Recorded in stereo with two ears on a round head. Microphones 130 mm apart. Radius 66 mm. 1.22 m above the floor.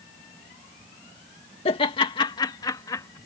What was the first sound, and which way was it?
Laughter, 45° left (ahead or behind).